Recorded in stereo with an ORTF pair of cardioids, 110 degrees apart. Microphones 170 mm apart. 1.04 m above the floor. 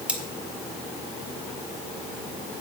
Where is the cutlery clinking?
5° right, 1.8 m.